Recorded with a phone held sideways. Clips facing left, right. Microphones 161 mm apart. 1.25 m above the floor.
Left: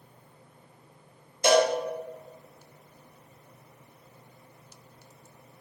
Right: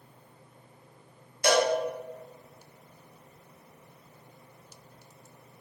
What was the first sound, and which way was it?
A cowbell, 20° left (ahead or behind).